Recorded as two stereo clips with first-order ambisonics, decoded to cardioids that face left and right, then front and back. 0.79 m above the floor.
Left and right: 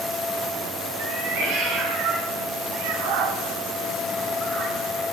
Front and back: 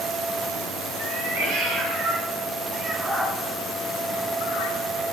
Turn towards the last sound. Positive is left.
turn(degrees=-15)